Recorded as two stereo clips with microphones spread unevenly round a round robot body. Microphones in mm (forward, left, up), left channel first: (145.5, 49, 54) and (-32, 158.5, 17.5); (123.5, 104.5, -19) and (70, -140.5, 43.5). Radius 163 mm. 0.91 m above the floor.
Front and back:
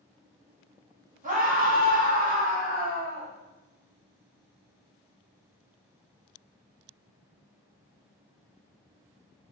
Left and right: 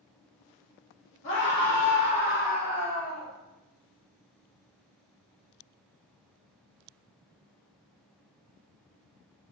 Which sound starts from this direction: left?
A scream, at 1.2 s.